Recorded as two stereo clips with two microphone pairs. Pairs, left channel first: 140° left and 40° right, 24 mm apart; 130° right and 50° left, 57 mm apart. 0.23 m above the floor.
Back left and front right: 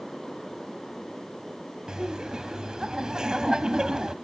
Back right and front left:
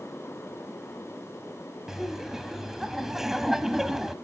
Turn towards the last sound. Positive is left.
turn(degrees=-30)